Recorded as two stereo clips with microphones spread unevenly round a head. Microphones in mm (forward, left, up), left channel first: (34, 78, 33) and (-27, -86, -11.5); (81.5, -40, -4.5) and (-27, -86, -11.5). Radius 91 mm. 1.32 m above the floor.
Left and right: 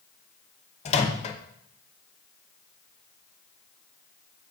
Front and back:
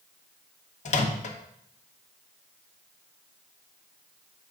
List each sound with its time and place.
0.8 s a microwave: 20° left, 0.9 m